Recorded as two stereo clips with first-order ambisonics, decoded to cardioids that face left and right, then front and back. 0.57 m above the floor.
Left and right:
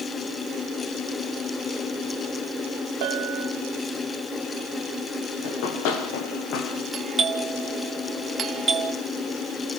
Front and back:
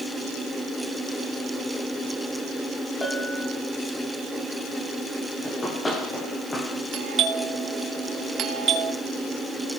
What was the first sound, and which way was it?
A bell, 80° right.